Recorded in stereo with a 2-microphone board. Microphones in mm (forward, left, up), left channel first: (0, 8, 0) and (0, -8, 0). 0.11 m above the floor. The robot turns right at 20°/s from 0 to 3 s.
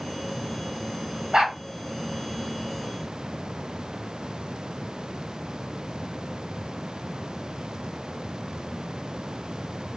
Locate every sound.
1.3 s a dog barking: 60° right (ahead or behind), 5.5 m; by 1.6 s 55° right (ahead or behind), 5.5 m